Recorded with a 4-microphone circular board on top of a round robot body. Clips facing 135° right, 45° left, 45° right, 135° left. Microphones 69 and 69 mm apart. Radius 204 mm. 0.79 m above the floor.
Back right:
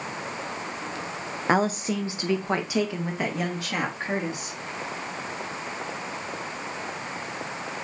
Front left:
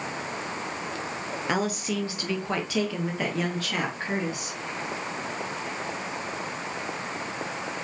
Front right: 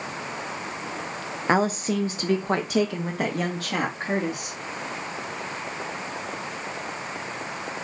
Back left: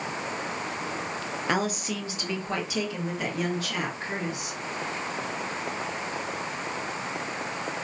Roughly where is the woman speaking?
Right.